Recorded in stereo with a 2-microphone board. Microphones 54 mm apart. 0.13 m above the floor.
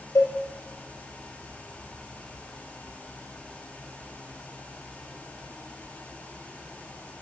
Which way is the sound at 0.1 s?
70° left (ahead or behind).